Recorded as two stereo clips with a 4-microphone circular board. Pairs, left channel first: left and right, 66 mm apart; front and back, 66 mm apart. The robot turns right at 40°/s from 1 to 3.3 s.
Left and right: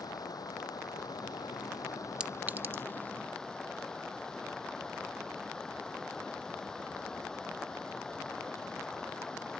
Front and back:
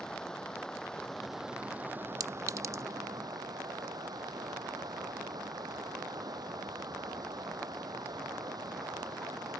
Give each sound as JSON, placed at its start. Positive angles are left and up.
{"t": 0.0, "sound": "running water", "azimuth_deg": 80}
{"t": 2.2, "sound": "a clink", "azimuth_deg": -160}